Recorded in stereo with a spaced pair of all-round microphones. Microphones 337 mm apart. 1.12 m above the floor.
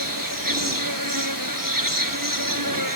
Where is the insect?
75° right (ahead or behind).